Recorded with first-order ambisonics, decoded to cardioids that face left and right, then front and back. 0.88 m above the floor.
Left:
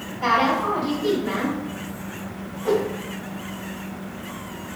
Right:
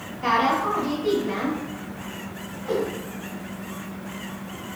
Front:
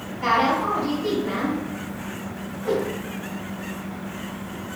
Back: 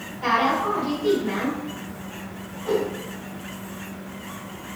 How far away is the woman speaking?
About 2.0 m.